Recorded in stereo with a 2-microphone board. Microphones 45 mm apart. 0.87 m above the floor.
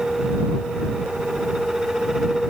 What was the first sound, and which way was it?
Only background noise.